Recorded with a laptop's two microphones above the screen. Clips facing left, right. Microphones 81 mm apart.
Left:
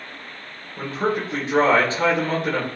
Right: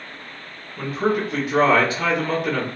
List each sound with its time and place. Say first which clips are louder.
0.8 s a man speaking: right 2 dB; 30° left (ahead or behind), 1.0 m